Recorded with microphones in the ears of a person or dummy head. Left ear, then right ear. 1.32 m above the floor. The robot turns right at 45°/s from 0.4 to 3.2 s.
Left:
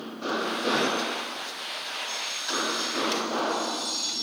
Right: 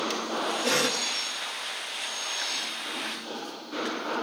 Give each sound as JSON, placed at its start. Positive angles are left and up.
{"t": 0.6, "sound": "a cough", "side_deg": -65, "distance_m": 2.0}